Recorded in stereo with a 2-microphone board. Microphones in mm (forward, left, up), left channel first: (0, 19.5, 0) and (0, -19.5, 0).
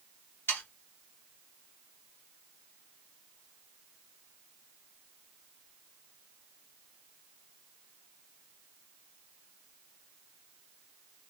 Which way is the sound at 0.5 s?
75° left (ahead or behind).